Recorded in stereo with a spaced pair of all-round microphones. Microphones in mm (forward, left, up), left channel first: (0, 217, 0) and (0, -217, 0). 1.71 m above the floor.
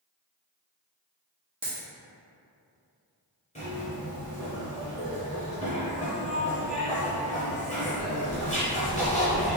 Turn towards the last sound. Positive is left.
turn(degrees=15)  # may be behind; listen again after turning